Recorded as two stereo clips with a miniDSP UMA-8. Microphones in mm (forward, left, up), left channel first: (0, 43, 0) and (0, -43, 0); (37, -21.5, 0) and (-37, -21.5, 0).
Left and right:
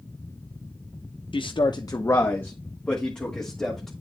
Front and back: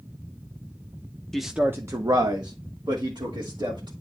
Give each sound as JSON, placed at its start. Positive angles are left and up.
{"t": 1.3, "sound": "a man speaking", "azimuth_deg": 85, "distance_m": 0.7}